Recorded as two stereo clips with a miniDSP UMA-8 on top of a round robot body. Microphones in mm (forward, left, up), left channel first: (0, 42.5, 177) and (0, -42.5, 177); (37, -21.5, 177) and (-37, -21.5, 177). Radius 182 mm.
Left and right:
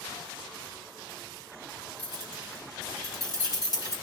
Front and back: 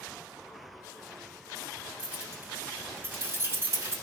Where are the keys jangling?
105° left, 3 m; by 3.9 s 130° left, 3 m.